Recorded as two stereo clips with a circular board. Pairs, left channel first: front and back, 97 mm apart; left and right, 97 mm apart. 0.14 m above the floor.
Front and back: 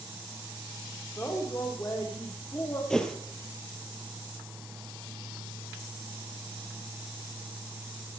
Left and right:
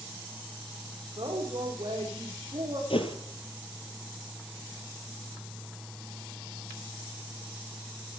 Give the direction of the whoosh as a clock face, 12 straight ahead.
9 o'clock.